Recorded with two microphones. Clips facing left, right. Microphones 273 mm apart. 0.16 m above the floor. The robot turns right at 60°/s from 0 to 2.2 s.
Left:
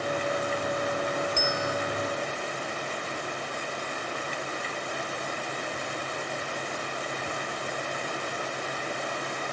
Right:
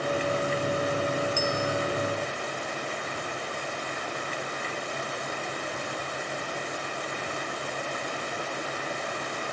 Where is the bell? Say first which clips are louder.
Right 2 dB; 20° left (ahead or behind), 2.0 m; by 1.8 s centre (ahead or behind), 2.0 m.